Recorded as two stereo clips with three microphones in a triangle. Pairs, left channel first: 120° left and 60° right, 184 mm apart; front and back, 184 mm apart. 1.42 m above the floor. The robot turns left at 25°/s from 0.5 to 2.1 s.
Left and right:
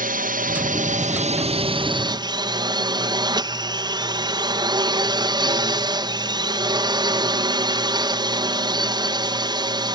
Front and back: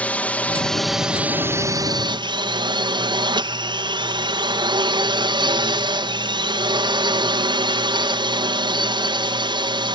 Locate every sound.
0.0 s a drone: 80° right; by 9.9 s 120° right